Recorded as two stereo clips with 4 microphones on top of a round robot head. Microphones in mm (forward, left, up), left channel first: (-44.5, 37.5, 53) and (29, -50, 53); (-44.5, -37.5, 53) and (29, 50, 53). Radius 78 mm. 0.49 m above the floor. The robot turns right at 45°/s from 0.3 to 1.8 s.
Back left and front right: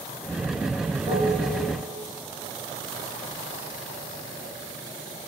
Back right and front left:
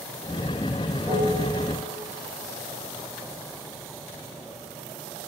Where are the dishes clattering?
20° right, 4 m; by 1.4 s 5° right, 4 m.